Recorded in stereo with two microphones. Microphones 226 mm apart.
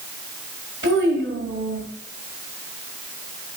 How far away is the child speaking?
About 1.7 m.